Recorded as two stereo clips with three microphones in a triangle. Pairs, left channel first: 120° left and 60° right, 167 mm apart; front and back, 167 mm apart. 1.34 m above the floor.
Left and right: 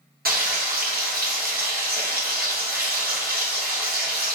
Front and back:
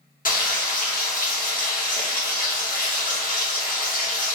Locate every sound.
0.2 s frying: 35° right, 0.9 m